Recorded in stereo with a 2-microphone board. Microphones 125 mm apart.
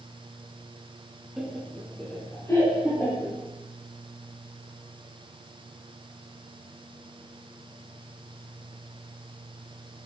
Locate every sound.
1.4 s laughter: 5° right (ahead or behind), 1.2 m; by 3.4 s 30° left (ahead or behind), 2.5 m